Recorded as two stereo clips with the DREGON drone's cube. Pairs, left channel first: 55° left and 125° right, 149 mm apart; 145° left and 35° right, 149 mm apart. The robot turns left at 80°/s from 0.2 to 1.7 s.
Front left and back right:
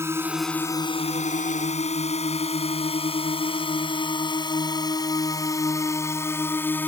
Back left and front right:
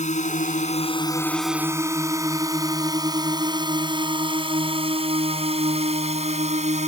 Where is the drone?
165° left; by 6.9 s 20° right.